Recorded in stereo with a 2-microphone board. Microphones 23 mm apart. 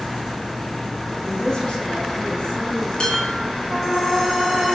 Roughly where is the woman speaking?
Left.